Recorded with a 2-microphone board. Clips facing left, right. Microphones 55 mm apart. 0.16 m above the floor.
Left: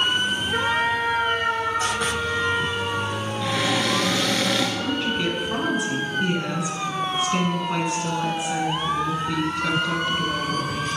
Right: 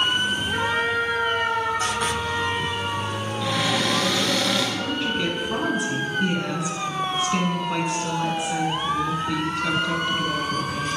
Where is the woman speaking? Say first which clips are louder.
Left 1 dB; 5° left (ahead or behind), 1.5 m.